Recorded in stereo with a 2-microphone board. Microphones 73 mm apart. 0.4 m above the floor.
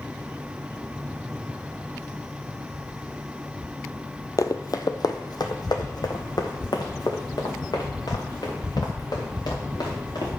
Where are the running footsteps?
55° left (ahead or behind), 0.6 m; by 10.3 s 70° left (ahead or behind), 3.5 m.